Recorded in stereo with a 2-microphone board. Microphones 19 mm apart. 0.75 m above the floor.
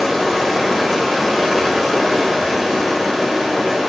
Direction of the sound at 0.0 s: 5° left (ahead or behind).